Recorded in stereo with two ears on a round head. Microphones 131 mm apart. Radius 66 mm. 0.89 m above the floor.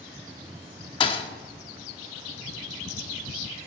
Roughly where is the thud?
Left.